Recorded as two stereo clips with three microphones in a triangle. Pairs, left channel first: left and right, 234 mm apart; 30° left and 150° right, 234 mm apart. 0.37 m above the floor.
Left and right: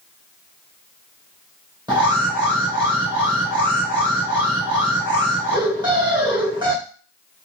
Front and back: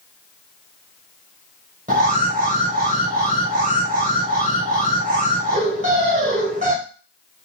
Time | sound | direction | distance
1.9 | an alarm | 145° right | 1.4 m